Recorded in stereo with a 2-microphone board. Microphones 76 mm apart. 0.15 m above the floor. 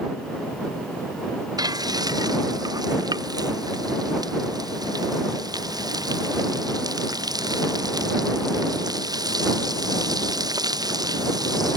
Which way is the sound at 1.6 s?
60° right (ahead or behind).